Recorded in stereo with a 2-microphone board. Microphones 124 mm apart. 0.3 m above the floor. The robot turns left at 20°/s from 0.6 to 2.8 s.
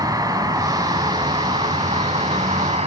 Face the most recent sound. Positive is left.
turn(degrees=-80)